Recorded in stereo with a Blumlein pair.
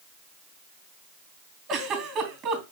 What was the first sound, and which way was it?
A giggle, 30° right.